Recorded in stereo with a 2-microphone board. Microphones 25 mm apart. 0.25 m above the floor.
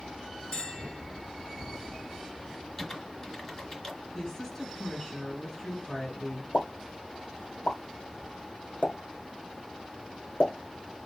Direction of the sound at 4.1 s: 10° left (ahead or behind).